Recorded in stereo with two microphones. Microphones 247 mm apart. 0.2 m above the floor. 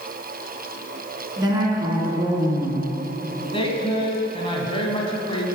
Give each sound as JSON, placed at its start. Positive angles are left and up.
{"t": 1.4, "sound": "a woman speaking", "side_deg": -20, "distance_m": 2.5}
{"t": 3.5, "sound": "a woman speaking", "side_deg": 20, "distance_m": 1.1}